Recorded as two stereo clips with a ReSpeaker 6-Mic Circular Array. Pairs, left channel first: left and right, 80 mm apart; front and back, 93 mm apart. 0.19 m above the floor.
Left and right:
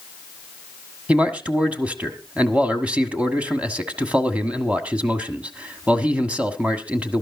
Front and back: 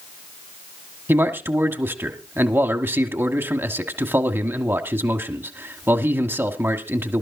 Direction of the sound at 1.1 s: 145° right.